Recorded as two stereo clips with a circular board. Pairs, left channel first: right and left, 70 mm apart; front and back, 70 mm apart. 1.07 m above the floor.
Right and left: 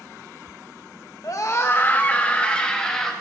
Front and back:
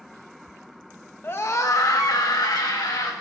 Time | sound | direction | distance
1.2 | a scream | 55° right | 1.1 m